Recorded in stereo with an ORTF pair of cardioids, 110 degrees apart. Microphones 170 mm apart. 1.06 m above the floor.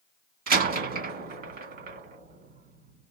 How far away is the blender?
I don't hear a blender.